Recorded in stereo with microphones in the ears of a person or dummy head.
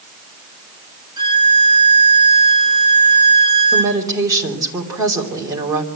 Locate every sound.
1.2 s a violin: 30° right (ahead or behind), 4.5 m
3.7 s a woman speaking: 20° right (ahead or behind), 2.5 m